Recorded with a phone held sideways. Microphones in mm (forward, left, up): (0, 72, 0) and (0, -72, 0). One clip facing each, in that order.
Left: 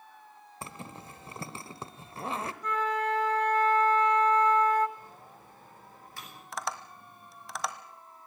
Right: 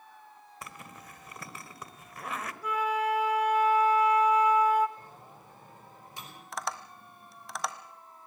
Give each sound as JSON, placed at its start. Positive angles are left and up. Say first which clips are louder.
{"t": 0.6, "sound": "a zipper", "louder": "left 4 dB", "side_deg": 30, "distance_m": 1.1}
{"t": 2.6, "sound": "a flute", "louder": "right 2 dB", "side_deg": -10, "distance_m": 1.4}
{"t": 5.0, "sound": "a microwave", "louder": "even", "side_deg": -20, "distance_m": 6.5}
{"t": 6.5, "sound": "tapping", "louder": "even", "side_deg": 0, "distance_m": 1.3}